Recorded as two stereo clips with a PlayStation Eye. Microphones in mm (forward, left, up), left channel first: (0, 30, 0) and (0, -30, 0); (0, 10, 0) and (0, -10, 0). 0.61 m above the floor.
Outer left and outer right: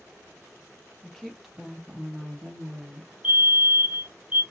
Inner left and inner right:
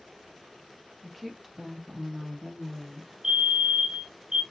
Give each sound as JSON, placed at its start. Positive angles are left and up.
{"t": 1.0, "sound": "a woman speaking", "side_deg": 10, "distance_m": 0.9}
{"t": 3.2, "sound": "a fire alarm", "side_deg": -25, "distance_m": 1.7}